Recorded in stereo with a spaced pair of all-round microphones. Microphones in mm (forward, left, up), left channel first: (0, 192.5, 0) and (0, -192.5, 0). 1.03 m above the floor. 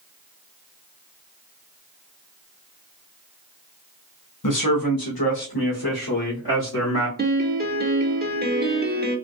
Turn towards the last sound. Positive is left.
turn(degrees=-25)  # may be behind; listen again after turning